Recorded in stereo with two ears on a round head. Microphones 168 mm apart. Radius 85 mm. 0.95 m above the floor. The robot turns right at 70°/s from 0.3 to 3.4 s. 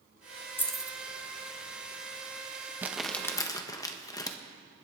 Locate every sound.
0.6 s keys jangling: 15° left (ahead or behind), 1.2 m; by 1.0 s 15° right (ahead or behind), 1.2 m
2.8 s crumpling: 10° right (ahead or behind), 1.0 m; by 4.4 s 20° left (ahead or behind), 1.0 m